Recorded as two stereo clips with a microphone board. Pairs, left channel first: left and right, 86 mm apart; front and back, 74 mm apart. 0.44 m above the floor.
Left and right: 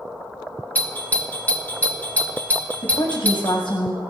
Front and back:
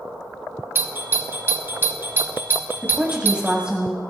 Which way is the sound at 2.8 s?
105° left.